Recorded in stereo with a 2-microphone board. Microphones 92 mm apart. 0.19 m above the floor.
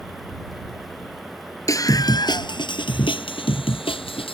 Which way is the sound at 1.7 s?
35° left (ahead or behind).